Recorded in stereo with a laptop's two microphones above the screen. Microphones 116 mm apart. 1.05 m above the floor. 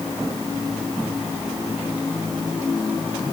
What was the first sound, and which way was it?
Only background noise.